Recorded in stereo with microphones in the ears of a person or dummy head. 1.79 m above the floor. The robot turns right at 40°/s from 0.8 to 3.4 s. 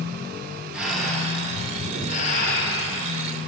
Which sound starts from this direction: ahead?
Breathing, at 0.7 s.